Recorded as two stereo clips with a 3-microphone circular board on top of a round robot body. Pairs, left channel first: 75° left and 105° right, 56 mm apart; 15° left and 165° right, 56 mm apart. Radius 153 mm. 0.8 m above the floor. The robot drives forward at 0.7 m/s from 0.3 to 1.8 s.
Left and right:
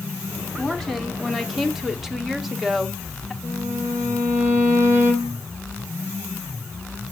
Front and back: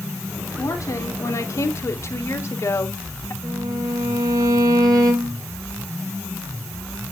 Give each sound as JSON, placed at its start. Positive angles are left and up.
{"t": 0.6, "sound": "a woman speaking", "azimuth_deg": -10, "distance_m": 2.0}
{"t": 3.4, "sound": "a violin", "azimuth_deg": -155, "distance_m": 2.0}